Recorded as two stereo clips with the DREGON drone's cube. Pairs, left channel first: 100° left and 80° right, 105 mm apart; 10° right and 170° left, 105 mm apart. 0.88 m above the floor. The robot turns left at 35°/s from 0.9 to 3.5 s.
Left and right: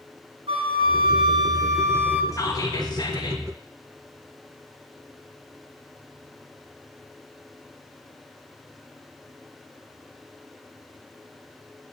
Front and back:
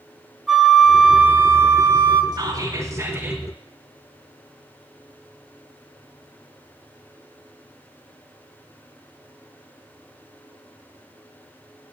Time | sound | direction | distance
0.5 | a flute | 105° right | 1.4 m
2.3 | whispering | 140° left | 1.2 m